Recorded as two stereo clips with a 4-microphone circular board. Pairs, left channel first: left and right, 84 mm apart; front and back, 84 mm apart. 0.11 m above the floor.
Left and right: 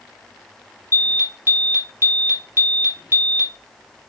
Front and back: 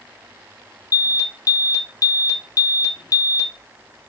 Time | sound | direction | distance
0.9 | an alarm | 35° right | 2.5 m